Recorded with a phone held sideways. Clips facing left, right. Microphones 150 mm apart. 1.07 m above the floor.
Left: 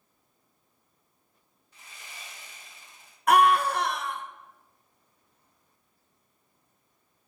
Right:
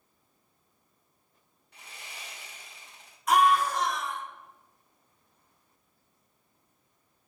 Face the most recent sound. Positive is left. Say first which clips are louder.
# left 2 dB
turn(degrees=65)  # may be behind; listen again after turning